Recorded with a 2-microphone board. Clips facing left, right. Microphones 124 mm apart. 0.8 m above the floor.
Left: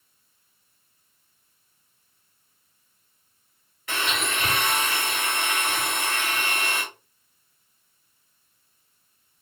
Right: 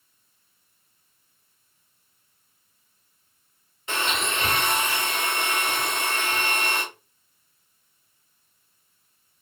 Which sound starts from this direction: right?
A blender, at 3.9 s.